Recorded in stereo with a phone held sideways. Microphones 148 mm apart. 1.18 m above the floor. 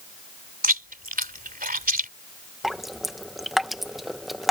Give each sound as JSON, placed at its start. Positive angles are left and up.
{"t": 0.6, "sound": "chewing", "side_deg": -80}
{"t": 2.6, "sound": "dripping", "side_deg": 0}